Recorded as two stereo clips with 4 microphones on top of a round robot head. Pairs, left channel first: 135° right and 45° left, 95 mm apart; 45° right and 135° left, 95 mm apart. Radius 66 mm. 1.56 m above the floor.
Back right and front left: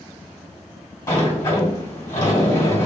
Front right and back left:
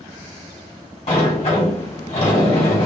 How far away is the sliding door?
About 2 m.